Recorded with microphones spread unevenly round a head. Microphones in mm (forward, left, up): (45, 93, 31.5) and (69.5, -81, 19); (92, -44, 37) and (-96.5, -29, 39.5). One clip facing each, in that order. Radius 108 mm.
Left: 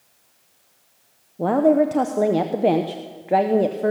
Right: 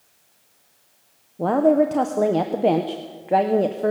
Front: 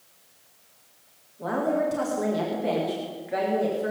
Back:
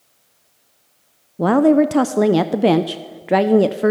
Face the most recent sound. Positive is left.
turn(degrees=-175)